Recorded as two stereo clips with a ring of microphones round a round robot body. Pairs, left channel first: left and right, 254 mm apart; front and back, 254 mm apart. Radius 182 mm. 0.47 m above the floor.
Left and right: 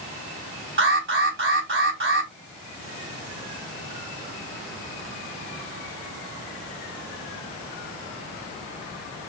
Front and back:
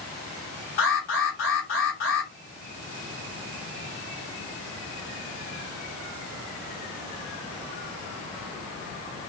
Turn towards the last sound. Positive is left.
turn(degrees=-55)